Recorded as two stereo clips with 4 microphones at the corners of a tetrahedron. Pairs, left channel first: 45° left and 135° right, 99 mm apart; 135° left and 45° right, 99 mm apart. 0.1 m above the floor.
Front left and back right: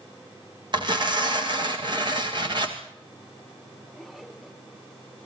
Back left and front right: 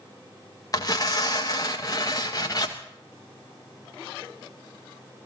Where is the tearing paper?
175° right, 3 m.